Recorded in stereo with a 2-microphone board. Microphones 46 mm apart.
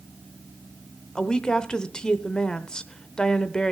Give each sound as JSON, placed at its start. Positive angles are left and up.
{"t": 1.1, "sound": "a woman speaking", "side_deg": 15, "distance_m": 0.8}